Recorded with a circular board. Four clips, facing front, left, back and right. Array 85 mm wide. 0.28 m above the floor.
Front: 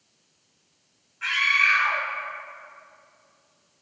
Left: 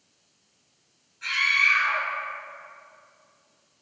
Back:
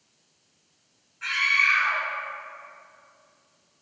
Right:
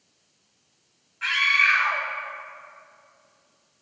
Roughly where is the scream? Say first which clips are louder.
Right 2 dB, front 1 dB; right.